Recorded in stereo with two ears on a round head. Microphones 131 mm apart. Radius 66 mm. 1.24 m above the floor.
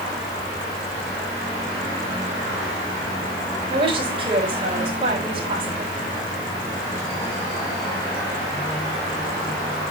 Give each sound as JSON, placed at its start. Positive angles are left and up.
{"t": 3.7, "sound": "a woman speaking", "side_deg": -35, "distance_m": 5.0}